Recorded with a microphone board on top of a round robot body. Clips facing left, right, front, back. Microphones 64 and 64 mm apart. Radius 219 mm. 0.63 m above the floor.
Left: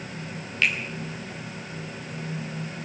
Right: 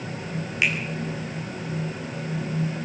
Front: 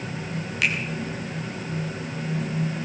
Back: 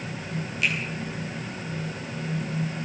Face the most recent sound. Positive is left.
turn(degrees=-15)